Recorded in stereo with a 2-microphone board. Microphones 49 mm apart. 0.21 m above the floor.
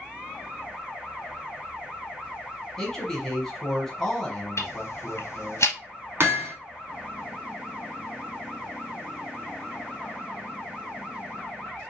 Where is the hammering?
55° right (ahead or behind), 0.9 m.